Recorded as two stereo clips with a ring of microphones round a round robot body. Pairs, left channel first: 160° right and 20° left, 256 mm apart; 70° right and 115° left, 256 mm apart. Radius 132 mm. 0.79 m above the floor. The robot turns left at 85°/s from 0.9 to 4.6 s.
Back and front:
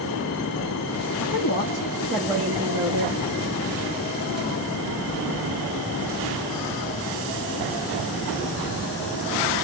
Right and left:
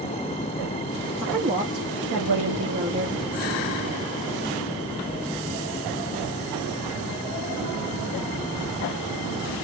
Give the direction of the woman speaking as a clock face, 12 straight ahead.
6 o'clock.